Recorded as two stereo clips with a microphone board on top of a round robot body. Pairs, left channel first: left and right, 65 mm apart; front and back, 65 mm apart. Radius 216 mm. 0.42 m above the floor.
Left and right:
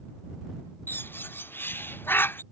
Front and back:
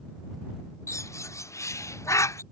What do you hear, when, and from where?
0.9 s a bird: 35° left